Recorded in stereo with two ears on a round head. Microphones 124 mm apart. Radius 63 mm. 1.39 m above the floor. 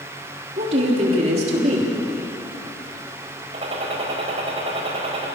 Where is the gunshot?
45° right (ahead or behind), 4 m.